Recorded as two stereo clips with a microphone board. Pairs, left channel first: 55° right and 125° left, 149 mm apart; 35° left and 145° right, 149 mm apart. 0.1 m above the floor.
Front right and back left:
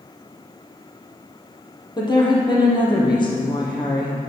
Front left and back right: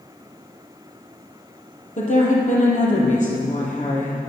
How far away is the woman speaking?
About 3.5 m.